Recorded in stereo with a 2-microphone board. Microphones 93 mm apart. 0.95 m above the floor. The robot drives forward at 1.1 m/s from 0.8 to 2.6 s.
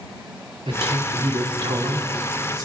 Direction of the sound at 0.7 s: 75° right (ahead or behind).